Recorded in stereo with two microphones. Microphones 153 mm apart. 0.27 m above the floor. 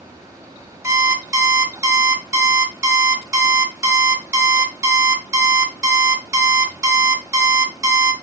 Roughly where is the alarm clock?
Centre.